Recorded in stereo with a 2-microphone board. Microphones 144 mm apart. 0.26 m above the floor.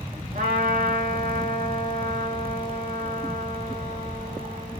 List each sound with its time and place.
0.3 s a trumpet: 75° right (ahead or behind), 1.1 m